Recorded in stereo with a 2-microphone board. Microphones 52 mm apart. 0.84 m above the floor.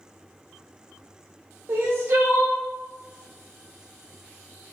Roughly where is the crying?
Right.